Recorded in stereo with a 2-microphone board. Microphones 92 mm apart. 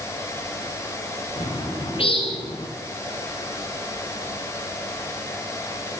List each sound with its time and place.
1.4 s a bird: 85° left, 5.5 m